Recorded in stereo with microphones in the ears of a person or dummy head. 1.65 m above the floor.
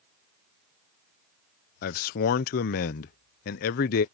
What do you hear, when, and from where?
1.8 s a man speaking: 50° left (ahead or behind)